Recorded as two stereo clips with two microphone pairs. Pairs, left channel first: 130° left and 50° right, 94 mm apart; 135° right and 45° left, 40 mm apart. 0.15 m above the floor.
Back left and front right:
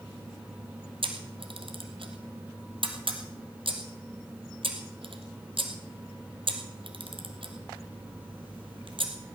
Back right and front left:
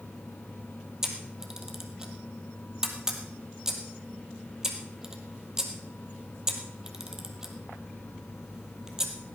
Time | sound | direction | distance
1.0 | a camera shutter | 30° right | 2 m